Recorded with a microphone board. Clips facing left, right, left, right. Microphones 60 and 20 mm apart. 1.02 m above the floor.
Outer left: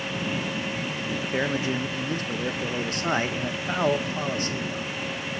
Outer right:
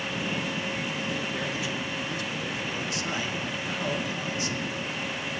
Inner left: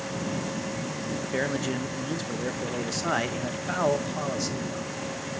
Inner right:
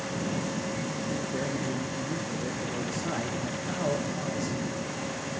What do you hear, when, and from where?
1.3 s a man speaking: 50° left (ahead or behind), 0.9 m